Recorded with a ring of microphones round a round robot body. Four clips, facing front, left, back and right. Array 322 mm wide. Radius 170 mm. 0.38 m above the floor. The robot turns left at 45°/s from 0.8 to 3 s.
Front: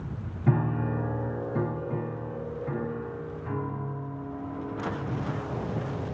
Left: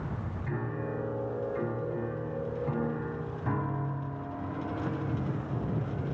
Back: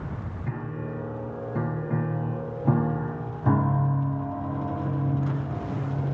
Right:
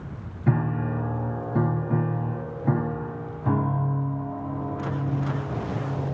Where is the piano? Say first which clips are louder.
Right 10 dB, front 8 dB; 55° right, 2.5 m; by 6.2 s 155° right, 2.5 m.